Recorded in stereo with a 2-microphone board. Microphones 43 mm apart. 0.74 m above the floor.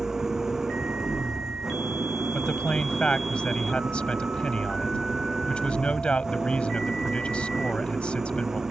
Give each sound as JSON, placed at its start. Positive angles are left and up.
{"t": 0.0, "sound": "an engine running", "side_deg": -10}
{"t": 2.3, "sound": "a man speaking", "side_deg": 25}